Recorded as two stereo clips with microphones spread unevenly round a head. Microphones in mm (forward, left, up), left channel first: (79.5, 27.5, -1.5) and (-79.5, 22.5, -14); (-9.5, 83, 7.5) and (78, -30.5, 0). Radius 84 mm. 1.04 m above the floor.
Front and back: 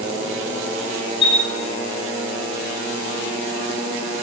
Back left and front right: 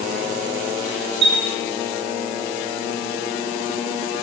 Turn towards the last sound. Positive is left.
turn(degrees=-60)